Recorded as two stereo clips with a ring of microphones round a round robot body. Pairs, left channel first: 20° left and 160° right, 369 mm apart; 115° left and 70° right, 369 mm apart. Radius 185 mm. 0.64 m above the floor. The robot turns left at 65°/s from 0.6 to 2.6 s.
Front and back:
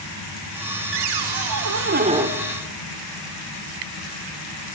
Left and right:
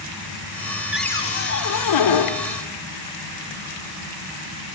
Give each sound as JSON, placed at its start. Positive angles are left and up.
{"t": 0.9, "sound": "a cupboard door", "azimuth_deg": -155, "distance_m": 2.0}